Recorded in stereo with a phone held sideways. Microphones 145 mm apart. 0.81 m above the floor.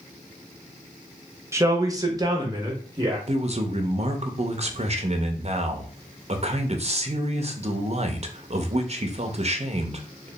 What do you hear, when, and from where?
1.5 s a man speaking: 20° right (ahead or behind), 0.7 m; by 3.2 s 25° right (ahead or behind), 1.1 m
3.3 s a man speaking: 45° right (ahead or behind), 0.6 m